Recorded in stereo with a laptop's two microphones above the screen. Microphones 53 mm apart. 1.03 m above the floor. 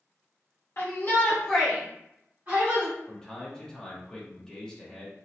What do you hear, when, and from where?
0.8 s a shout: 50° left (ahead or behind), 1.1 m; by 3.0 s 45° right (ahead or behind), 1.8 m
3.1 s a man speaking: 15° left (ahead or behind), 0.7 m